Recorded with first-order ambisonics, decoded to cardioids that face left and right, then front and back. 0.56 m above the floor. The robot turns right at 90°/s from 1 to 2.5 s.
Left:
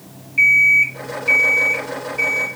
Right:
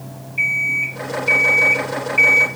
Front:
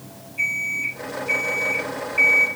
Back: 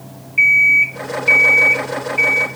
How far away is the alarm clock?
About 2.5 m.